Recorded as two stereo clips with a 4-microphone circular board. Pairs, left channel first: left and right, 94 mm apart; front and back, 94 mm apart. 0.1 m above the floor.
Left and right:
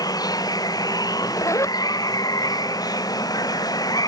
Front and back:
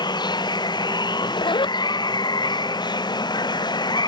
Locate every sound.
0.0 s running water: 40° left
1.1 s a zipper: 35° left